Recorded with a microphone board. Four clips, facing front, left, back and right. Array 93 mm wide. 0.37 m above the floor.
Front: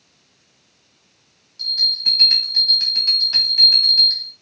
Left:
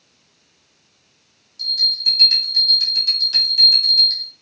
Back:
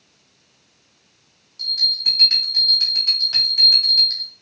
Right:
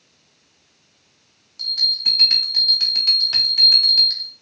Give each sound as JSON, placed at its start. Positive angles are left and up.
{"t": 1.6, "sound": "a bell", "azimuth_deg": -95, "distance_m": 1.0}